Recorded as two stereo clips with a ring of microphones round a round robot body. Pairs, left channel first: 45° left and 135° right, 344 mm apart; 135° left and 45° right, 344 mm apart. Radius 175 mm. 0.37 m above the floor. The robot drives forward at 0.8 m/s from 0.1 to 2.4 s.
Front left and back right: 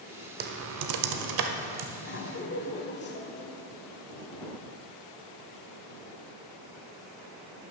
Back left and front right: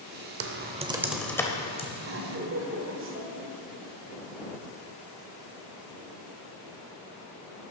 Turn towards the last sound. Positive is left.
turn(degrees=-5)